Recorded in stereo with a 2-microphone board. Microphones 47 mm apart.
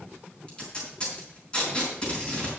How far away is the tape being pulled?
About 5 m.